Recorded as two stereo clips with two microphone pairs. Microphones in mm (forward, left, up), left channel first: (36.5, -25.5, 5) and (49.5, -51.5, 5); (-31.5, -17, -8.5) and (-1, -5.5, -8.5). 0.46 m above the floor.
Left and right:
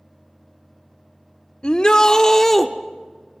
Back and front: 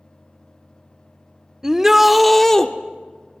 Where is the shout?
80° left, 1.2 m; by 2.7 s 155° right, 1.0 m.